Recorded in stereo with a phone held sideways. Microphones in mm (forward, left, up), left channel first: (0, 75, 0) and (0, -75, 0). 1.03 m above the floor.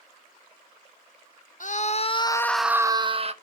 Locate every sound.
1.6 s a scream: 60° left (ahead or behind), 0.8 m; by 3.3 s 45° right (ahead or behind), 0.8 m